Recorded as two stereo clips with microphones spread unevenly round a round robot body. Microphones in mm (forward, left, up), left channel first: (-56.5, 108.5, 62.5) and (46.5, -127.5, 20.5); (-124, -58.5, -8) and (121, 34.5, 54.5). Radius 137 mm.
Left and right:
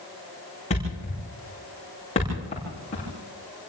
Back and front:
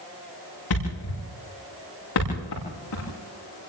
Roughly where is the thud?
Behind.